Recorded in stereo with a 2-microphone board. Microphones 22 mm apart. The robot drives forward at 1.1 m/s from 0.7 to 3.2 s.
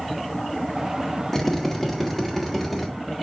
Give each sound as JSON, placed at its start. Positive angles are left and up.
{"t": 1.3, "sound": "a drill", "side_deg": 15, "distance_m": 1.5}